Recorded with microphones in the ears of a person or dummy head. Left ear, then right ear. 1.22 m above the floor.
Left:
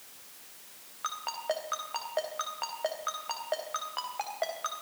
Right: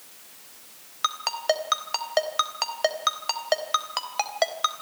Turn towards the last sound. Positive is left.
turn(degrees=-75)  # may be behind; listen again after turning